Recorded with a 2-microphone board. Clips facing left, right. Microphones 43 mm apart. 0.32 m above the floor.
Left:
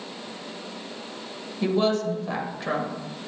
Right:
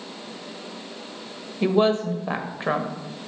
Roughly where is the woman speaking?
Right.